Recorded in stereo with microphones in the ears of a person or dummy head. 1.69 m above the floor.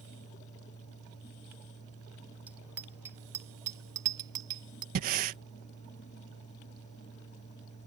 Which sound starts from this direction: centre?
A bicycle bell, at 2.5 s.